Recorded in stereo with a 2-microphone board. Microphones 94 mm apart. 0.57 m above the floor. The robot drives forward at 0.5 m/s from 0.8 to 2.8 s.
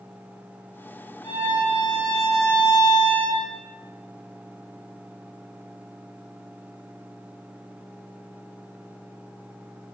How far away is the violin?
About 3.5 m.